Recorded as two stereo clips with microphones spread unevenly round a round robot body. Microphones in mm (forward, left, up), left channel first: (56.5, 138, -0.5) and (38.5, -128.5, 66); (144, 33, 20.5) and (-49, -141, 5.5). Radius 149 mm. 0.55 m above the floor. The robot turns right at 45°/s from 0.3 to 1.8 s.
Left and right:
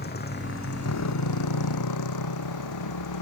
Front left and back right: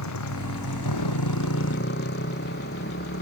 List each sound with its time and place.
0.0 s a motorcycle: 35° left; by 3.2 s 100° left